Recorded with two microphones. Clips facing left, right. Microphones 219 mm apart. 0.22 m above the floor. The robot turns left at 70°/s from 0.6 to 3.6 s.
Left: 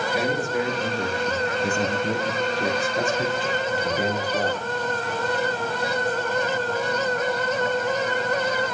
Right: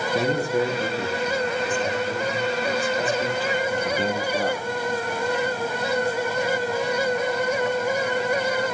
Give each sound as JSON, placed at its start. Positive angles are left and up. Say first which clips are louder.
{"t": 0.1, "sound": "a man speaking", "louder": "right 4 dB", "azimuth_deg": -140, "distance_m": 5.0}